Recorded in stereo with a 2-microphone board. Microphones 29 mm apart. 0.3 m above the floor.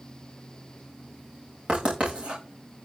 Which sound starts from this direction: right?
Writing, at 1.7 s.